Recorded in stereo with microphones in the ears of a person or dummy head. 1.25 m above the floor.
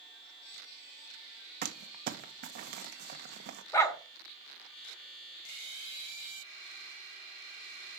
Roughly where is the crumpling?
Right.